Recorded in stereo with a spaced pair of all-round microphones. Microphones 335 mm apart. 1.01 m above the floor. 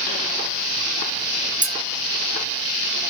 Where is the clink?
25° right (ahead or behind), 0.6 m.